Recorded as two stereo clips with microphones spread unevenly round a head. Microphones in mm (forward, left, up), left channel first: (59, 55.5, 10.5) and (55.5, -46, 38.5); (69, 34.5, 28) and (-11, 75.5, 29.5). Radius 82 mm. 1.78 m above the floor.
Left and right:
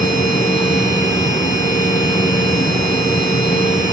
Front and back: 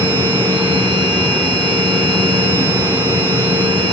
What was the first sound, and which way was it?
A machine running, 125° left.